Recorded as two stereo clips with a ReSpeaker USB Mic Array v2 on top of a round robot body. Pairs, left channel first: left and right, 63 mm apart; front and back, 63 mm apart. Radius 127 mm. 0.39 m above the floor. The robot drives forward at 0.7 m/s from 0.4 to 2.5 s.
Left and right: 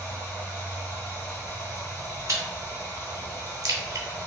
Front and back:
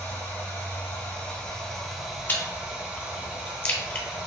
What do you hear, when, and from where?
0.0 s running water: 35° left, 1.7 m; by 4.3 s 120° left, 1.3 m
2.3 s chewing: 55° right, 1.0 m; by 4.1 s 65° right, 0.9 m